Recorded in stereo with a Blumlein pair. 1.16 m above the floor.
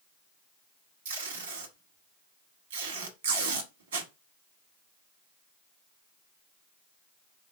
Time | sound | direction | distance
1.1 | tape being pulled | 65° right | 1.2 m